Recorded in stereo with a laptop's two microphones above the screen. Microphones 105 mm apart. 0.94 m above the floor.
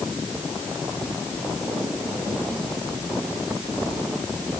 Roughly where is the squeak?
No squeak in this recording.